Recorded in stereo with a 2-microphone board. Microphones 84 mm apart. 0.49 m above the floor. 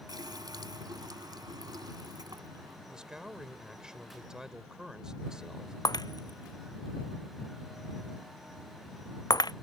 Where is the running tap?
55° right (ahead or behind).